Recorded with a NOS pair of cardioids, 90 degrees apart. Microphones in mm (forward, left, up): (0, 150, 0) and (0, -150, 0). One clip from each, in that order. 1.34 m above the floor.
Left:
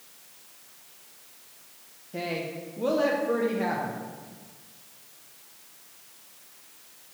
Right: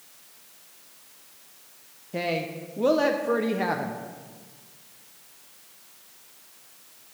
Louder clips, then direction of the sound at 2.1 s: Right 4 dB; 25° right.